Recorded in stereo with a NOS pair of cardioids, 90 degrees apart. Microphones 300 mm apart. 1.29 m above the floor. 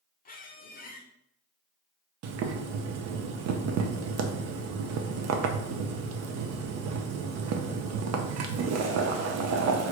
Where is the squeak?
30° left, 0.6 m.